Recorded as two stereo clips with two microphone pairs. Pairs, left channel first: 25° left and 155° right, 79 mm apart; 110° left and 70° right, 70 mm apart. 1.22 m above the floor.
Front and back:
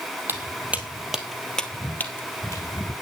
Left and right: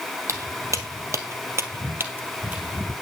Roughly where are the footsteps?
Right.